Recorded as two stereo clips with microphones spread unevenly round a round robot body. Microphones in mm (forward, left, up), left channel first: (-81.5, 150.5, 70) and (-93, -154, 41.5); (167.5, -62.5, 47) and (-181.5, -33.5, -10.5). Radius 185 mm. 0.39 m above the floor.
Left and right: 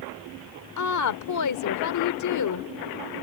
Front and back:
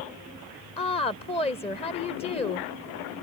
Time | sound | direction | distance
0.8 | a woman speaking | 75° left | ?